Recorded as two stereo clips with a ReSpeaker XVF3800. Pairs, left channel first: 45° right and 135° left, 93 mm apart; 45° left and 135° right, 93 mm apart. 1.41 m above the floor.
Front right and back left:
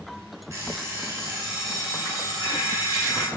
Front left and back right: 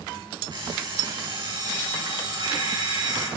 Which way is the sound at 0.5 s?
165° right.